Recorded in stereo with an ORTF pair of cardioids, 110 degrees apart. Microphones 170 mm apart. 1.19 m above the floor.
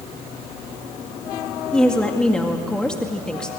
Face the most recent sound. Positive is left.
turn(degrees=5)